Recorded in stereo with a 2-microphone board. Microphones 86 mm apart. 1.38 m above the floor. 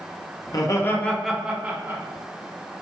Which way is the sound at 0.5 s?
50° left (ahead or behind).